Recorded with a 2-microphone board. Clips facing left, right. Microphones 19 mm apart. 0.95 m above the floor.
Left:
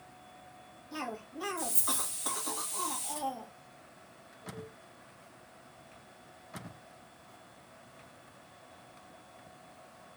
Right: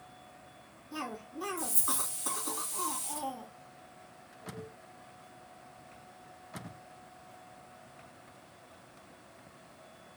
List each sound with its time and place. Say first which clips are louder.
0.9 s a cough: even; 30° left (ahead or behind), 1.8 m